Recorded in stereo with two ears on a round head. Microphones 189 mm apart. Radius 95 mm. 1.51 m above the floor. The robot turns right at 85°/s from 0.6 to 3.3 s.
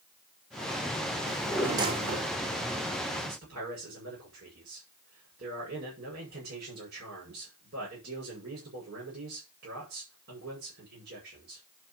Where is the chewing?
No chewing in this recording.